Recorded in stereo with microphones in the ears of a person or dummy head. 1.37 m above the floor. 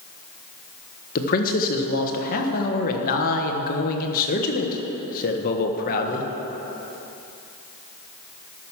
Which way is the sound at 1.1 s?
45° left (ahead or behind).